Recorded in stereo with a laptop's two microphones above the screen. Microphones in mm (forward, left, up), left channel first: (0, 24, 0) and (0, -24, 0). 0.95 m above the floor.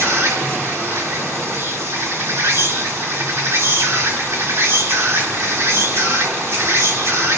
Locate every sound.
0.0 s an insect: 75° right (ahead or behind), 3 m